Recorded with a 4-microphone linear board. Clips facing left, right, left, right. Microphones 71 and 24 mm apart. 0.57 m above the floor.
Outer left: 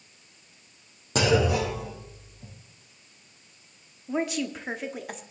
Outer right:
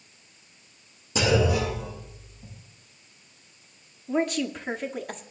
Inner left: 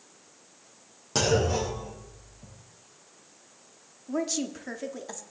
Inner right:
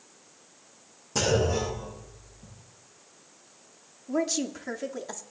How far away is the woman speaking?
About 1.2 m.